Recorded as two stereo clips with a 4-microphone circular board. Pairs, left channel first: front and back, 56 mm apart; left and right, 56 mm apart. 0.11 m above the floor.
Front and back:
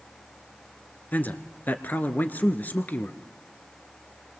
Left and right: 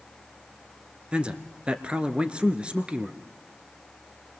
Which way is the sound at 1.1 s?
35° right.